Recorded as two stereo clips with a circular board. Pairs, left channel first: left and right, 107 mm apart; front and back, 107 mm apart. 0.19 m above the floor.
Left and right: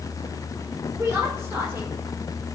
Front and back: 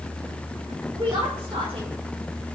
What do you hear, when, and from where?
0.9 s a woman speaking: 150° right, 4.5 m; by 2.0 s 155° right, 5 m